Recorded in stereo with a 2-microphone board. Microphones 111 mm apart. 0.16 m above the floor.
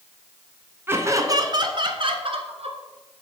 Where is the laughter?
20° right (ahead or behind), 1.5 m; by 2.8 s 60° right (ahead or behind), 2 m.